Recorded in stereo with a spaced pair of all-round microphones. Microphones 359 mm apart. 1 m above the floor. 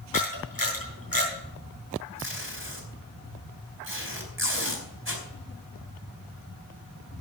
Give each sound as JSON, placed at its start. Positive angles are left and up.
{"t": 0.1, "sound": "a camera shutter", "side_deg": 70, "distance_m": 6.0}
{"t": 2.2, "sound": "tape being pulled", "side_deg": -35, "distance_m": 4.0}